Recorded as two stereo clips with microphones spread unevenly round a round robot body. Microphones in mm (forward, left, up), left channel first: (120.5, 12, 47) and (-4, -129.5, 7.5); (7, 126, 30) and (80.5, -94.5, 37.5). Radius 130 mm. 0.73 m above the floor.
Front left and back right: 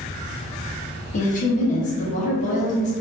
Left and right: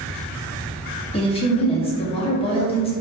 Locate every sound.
1.1 s a woman speaking: 75° left, 0.7 m